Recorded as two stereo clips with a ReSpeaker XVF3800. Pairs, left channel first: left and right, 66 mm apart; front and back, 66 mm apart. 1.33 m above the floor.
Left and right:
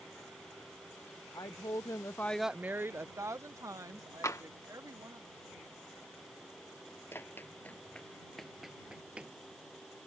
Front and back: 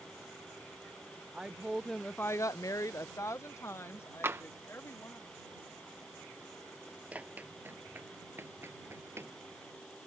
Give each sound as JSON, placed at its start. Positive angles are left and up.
{"t": 1.3, "sound": "a woman speaking", "azimuth_deg": 105}
{"t": 4.2, "sound": "tapping", "azimuth_deg": 130}
{"t": 7.1, "sound": "running footsteps", "azimuth_deg": 125}